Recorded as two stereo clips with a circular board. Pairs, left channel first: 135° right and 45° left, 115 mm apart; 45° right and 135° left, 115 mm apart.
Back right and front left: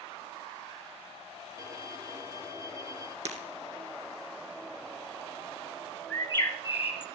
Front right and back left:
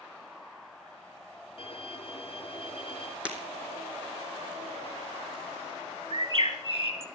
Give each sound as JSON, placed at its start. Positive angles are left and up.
{"t": 1.6, "sound": "a violin", "azimuth_deg": -15, "distance_m": 1.8}
{"t": 3.2, "sound": "breaking glass", "azimuth_deg": 55, "distance_m": 2.5}
{"t": 6.1, "sound": "a bird", "azimuth_deg": 160, "distance_m": 1.9}